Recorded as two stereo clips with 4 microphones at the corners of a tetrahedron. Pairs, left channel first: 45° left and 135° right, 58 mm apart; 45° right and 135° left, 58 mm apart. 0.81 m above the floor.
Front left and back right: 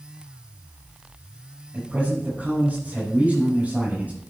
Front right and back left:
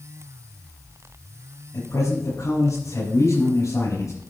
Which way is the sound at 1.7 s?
70° right.